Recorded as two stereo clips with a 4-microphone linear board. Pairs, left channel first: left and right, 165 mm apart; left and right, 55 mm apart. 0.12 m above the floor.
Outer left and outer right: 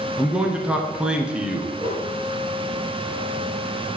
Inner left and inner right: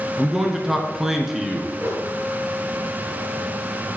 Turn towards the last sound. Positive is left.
turn(degrees=-30)  # may be behind; listen again after turning